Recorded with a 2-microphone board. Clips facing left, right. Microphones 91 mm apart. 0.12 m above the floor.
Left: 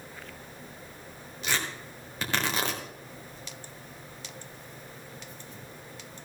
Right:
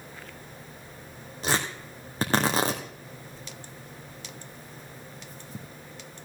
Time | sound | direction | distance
1.4 | tearing paper | 35° right (ahead or behind) | 2 m